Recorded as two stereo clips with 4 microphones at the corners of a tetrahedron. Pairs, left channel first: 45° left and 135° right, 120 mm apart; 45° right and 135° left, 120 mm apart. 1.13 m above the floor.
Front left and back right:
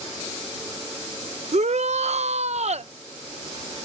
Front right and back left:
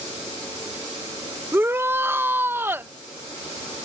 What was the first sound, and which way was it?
A shout, 155° right.